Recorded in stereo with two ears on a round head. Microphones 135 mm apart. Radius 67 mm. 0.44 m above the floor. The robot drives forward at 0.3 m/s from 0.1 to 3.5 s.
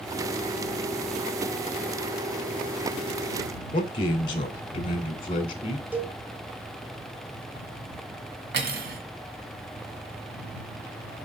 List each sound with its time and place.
3.7 s a man speaking: 35° left (ahead or behind), 1.8 m
5.9 s a cowbell: 15° right (ahead or behind), 1.2 m
8.5 s cutlery clinking: 75° right (ahead or behind), 1.8 m